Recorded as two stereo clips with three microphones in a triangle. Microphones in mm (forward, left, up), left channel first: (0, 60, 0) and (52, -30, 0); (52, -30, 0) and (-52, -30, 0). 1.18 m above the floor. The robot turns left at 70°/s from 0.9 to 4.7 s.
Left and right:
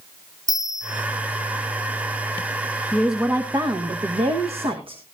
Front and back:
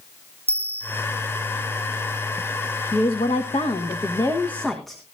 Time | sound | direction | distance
0.5 | a bell | 170° left | 0.7 m
2.9 | a woman speaking | 35° left | 1.2 m